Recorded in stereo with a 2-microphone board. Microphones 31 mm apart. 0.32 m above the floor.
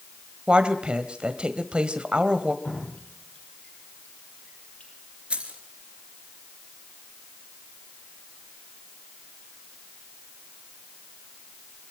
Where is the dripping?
60° left (ahead or behind), 8 m.